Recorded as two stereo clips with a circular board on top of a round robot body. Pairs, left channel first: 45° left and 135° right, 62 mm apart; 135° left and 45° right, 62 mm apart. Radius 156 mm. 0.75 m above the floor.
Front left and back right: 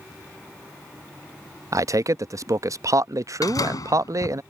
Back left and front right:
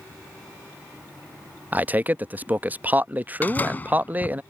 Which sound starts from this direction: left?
A door slam, at 3.4 s.